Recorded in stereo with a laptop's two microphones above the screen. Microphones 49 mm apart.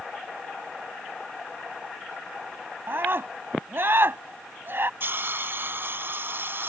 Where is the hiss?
45° right (ahead or behind).